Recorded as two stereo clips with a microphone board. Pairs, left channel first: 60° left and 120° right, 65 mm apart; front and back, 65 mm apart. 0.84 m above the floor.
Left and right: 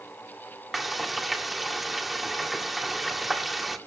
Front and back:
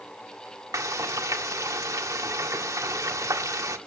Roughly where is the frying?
Behind left.